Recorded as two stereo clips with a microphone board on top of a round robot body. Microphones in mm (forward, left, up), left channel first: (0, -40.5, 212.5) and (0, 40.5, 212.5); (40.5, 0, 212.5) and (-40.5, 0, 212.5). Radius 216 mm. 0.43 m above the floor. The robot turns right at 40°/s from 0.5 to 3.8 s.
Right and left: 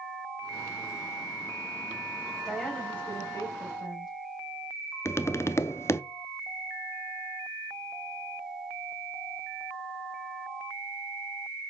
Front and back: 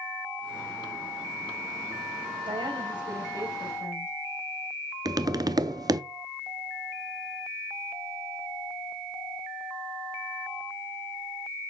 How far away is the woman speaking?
About 3.5 m.